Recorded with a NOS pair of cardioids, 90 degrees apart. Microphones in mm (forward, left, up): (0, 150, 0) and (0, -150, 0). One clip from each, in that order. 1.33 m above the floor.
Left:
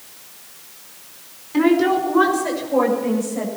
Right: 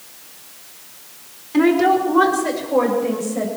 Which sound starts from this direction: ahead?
A woman speaking, at 1.5 s.